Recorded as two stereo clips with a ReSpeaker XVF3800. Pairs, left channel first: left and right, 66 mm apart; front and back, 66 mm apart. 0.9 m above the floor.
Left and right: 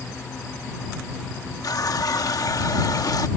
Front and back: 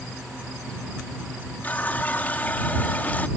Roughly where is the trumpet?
No trumpet in this recording.